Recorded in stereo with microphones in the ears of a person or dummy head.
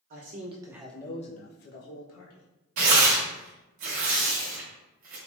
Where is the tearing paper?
40° right (ahead or behind), 0.8 m.